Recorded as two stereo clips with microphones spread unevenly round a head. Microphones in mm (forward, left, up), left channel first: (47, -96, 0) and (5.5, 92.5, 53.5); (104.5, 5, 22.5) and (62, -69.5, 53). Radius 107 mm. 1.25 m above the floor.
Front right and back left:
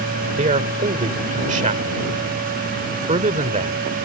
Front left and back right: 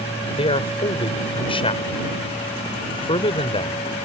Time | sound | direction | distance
0.4 | a man speaking | 50° left | ?